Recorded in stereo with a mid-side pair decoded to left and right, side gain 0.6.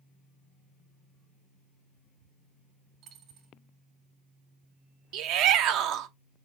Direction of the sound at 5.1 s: 65° right.